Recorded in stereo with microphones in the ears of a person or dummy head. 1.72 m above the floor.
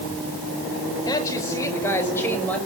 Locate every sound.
1.1 s a woman speaking: 20° left (ahead or behind), 5.5 m; by 2.6 s 5° left (ahead or behind), 7 m